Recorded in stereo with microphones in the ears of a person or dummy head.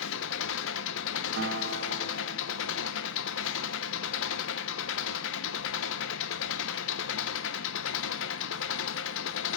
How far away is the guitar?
About 2 m.